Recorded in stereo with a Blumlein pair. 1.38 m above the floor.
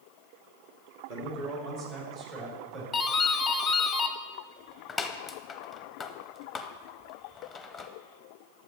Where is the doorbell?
10° left, 0.7 m.